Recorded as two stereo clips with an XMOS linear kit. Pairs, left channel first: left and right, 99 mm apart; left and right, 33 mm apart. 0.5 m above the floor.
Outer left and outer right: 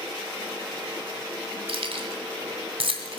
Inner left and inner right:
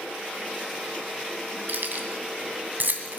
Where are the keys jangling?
70° right (ahead or behind), 2.5 m.